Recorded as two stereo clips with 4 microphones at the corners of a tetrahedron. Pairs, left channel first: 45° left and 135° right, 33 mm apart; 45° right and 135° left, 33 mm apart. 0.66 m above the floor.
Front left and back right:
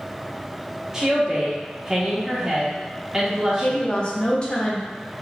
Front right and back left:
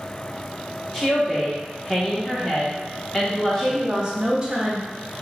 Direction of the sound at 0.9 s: 75° right.